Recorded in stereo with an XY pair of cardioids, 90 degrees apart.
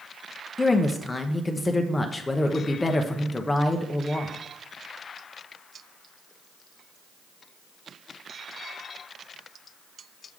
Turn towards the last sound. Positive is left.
turn(degrees=20)